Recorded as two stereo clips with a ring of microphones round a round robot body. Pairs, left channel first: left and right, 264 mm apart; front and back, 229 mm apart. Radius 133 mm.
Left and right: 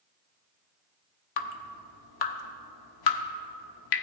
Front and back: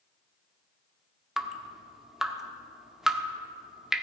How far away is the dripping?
About 0.8 m.